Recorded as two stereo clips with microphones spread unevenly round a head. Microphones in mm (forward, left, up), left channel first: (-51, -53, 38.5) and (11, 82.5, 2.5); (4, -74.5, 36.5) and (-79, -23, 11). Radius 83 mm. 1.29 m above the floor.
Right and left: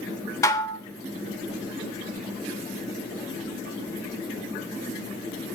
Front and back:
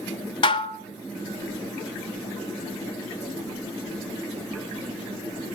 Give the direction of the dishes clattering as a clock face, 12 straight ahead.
2 o'clock.